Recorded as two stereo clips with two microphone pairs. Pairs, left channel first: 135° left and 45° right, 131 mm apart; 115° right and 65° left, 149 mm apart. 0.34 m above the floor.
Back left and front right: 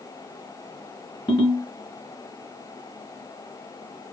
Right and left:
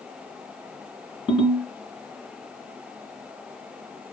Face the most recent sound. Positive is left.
turn(degrees=-175)